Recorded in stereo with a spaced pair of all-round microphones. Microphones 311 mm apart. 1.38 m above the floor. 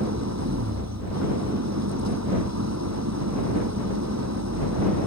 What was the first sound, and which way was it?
An engine running, 60° right (ahead or behind).